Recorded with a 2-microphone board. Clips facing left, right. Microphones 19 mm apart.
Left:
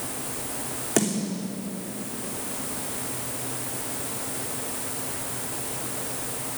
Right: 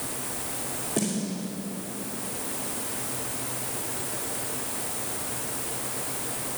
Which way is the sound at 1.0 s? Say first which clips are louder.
Left 4 dB; 75° left (ahead or behind).